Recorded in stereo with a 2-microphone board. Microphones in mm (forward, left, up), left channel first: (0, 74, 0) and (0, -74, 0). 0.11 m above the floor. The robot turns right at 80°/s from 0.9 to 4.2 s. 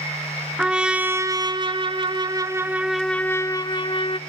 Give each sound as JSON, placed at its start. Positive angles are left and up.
{"t": 0.6, "sound": "a trumpet", "azimuth_deg": -170, "distance_m": 0.6}